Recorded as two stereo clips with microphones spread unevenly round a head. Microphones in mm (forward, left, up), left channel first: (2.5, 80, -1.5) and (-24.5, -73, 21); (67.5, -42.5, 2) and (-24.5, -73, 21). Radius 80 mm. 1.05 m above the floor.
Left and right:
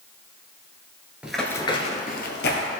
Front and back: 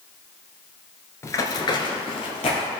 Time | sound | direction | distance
1.2 | running footsteps | 40° right | 1.1 m